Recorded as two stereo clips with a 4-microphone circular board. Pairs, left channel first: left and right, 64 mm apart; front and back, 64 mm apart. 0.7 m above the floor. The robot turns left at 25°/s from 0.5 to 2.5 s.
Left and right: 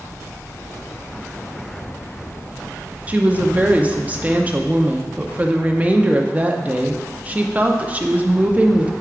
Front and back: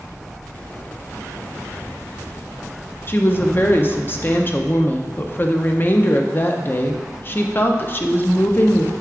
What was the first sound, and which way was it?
A woman speaking, 40° right.